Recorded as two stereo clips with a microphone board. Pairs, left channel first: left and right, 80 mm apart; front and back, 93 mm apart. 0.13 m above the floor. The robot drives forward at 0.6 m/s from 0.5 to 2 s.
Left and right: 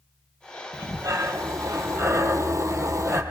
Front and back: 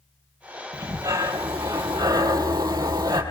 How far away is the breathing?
About 3 m.